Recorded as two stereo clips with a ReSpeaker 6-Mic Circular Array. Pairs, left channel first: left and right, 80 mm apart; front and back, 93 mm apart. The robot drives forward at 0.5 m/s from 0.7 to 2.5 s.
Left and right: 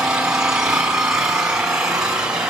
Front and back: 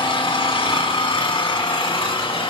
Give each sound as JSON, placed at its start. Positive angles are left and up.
{"t": 0.0, "sound": "an engine running", "azimuth_deg": -10, "distance_m": 5.5}